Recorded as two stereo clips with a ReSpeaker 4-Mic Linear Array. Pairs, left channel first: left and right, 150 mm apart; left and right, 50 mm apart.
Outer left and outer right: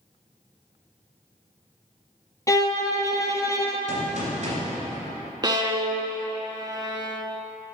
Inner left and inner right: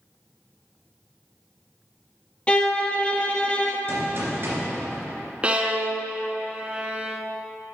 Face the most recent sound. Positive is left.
turn(degrees=-30)  # may be behind; listen again after turning